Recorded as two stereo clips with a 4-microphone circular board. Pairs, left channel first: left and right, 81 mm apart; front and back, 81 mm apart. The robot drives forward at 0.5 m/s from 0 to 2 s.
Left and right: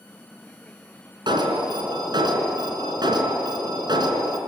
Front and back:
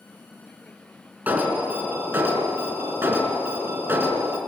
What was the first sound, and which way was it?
An alarm, 110° right.